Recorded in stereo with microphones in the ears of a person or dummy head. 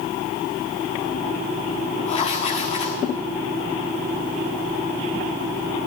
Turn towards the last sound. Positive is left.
turn(degrees=40)  # may be behind; listen again after turning